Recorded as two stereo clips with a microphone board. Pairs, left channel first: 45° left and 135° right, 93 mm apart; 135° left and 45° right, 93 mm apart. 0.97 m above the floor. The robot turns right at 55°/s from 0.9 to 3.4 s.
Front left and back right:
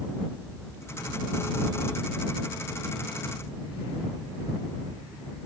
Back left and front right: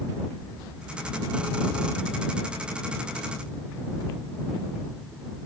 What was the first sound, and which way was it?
Only background noise.